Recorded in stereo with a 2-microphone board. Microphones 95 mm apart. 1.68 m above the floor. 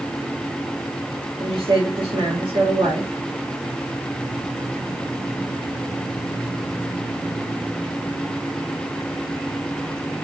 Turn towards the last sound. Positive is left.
turn(degrees=-65)  # may be behind; listen again after turning